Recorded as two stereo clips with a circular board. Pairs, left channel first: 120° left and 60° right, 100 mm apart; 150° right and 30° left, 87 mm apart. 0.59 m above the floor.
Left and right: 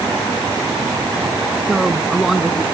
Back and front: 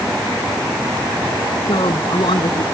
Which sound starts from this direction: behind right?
A woman speaking, at 1.7 s.